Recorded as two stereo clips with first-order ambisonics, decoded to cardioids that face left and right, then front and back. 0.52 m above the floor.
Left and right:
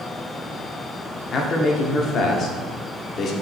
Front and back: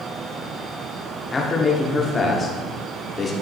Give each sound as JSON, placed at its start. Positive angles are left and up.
{"t": 1.3, "sound": "a man speaking", "azimuth_deg": 60, "distance_m": 1.1}